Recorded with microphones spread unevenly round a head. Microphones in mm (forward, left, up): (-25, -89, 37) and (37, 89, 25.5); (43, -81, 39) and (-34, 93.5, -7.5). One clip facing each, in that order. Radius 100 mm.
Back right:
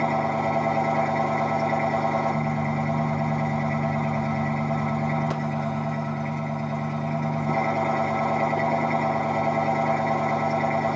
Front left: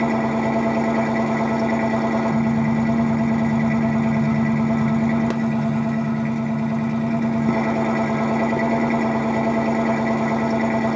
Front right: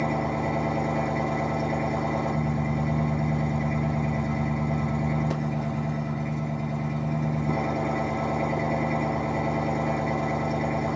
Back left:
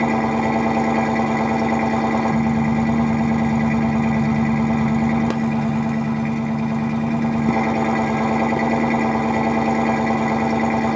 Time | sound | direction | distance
0.0 | an engine running | 100° left | 1.1 m